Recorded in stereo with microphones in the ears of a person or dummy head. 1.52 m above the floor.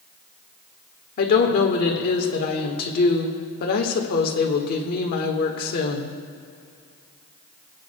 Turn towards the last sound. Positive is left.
turn(degrees=45)  # may be behind; listen again after turning